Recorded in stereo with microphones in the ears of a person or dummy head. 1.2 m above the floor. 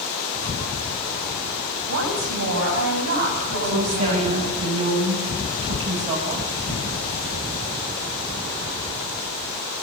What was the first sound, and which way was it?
A woman speaking, 60° right (ahead or behind).